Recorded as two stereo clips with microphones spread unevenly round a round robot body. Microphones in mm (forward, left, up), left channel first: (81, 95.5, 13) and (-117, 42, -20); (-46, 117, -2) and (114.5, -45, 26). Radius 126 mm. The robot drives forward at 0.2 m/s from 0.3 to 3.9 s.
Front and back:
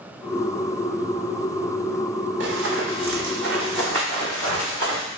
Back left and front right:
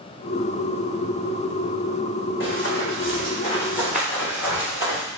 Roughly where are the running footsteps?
Behind.